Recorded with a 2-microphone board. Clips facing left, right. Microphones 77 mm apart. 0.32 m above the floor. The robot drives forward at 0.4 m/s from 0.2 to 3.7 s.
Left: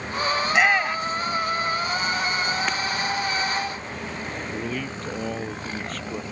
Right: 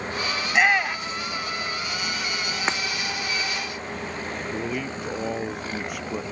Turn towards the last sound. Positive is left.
turn(degrees=-10)  # may be behind; listen again after turning